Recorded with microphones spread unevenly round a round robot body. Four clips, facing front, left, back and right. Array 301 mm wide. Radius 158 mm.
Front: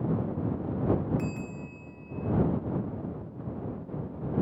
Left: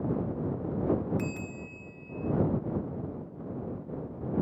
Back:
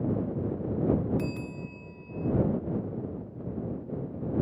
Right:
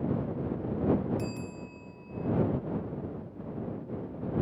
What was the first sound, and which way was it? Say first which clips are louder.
A bell: left 1 dB, back 1 dB; 165° left.